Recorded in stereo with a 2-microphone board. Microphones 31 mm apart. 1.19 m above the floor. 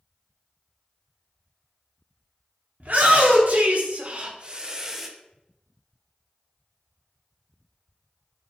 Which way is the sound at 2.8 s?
60° right (ahead or behind).